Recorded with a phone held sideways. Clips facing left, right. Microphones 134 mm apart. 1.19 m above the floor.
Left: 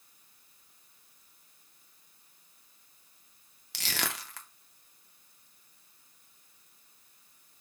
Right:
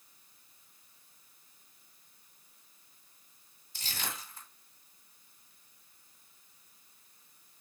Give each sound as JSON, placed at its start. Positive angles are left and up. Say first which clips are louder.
{"t": 3.7, "sound": "crushing", "louder": "left 5 dB", "side_deg": 80, "distance_m": 0.5}